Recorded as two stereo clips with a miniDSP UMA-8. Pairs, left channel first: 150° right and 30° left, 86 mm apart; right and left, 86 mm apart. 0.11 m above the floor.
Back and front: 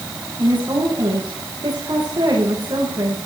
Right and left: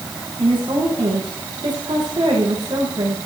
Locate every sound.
0.4 s a woman speaking: 70° left, 9 m